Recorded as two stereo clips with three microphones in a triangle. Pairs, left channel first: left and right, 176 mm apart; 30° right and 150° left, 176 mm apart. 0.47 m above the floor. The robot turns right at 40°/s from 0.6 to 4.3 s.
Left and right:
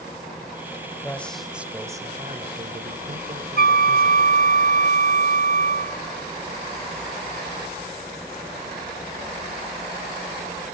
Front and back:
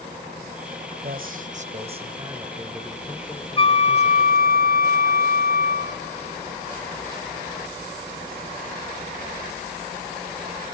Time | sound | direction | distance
1.0 | a man speaking | 165° left | 2 m
3.6 | a flute | 85° right | 0.6 m